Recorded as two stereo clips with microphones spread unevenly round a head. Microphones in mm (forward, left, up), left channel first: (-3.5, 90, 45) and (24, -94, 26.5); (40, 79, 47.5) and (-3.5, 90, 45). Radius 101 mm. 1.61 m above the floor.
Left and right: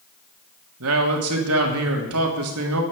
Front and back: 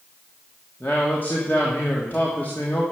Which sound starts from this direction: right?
A man speaking, at 0.8 s.